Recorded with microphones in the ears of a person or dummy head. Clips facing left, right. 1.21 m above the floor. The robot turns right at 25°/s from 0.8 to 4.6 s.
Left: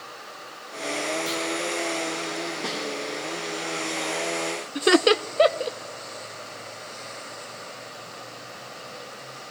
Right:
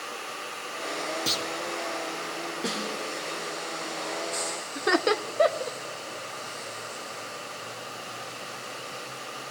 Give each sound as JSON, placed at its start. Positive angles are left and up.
{"t": 1.3, "sound": "a clunk", "side_deg": -35, "distance_m": 1.8}
{"t": 2.6, "sound": "a snare drum", "side_deg": 0, "distance_m": 2.0}
{"t": 4.8, "sound": "laughter", "side_deg": 40, "distance_m": 0.6}